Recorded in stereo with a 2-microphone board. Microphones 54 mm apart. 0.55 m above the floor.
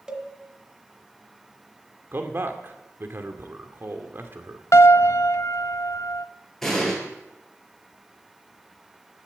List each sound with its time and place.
0.1 s a cowbell: 15° right (ahead or behind), 1.6 m
2.1 s a man speaking: 45° right (ahead or behind), 1.9 m
4.7 s a piano: 65° left (ahead or behind), 0.5 m
6.6 s an explosion: 5° left (ahead or behind), 7 m